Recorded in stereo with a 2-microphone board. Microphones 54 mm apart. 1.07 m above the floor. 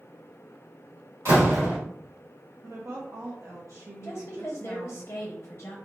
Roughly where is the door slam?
Right.